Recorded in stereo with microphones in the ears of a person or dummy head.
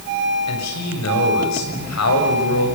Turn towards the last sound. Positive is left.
turn(degrees=85)